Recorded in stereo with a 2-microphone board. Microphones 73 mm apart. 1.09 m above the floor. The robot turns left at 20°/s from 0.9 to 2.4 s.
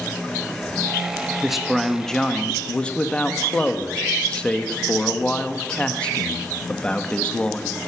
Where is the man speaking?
5° right (ahead or behind), 1.2 m; by 7.8 s 15° left (ahead or behind), 1.2 m.